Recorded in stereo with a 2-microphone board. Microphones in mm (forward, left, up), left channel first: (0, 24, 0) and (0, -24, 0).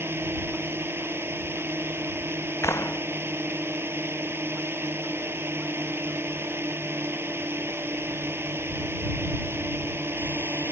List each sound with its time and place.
0.0 s a drone: 55° right (ahead or behind)
2.6 s a clap: 75° left (ahead or behind)